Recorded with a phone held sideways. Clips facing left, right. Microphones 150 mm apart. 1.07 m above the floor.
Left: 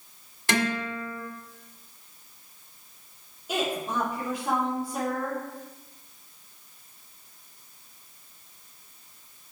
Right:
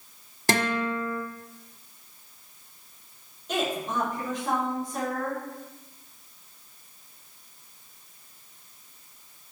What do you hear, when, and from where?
0.5 s a guitar: 45° right (ahead or behind), 1.4 m
3.5 s a woman speaking: 10° left (ahead or behind), 2.5 m